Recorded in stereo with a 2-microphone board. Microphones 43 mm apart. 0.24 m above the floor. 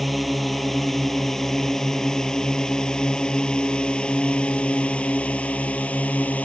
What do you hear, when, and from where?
0.0 s a drone: centre (ahead or behind); by 6.5 s 35° left (ahead or behind)